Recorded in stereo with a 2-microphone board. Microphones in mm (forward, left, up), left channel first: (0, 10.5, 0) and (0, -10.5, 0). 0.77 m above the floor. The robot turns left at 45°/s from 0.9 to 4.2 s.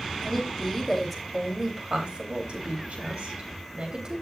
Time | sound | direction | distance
0.2 | a woman speaking | 10° left | 3.5 m